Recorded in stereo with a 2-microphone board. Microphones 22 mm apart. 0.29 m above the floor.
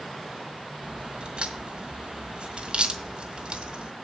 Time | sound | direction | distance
0.8 | a crack | 55° right (ahead or behind) | 2 m